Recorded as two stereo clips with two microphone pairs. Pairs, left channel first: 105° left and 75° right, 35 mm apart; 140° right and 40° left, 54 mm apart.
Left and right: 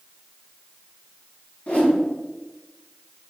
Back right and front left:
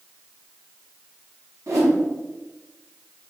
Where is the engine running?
No engine running in this recording.